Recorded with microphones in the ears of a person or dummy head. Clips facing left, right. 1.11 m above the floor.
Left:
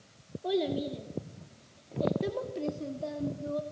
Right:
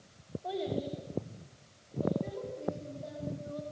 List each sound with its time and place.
0.4 s a child speaking: 50° left (ahead or behind), 2.5 m; by 3.6 s 65° left (ahead or behind), 2.5 m